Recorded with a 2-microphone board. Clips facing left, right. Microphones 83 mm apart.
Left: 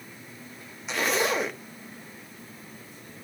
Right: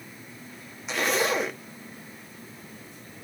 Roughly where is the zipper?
Centre.